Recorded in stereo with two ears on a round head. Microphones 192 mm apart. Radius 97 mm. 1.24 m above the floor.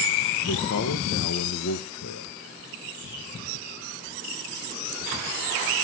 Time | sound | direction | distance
0.4 | a man speaking | 70° left (ahead or behind) | 1.4 m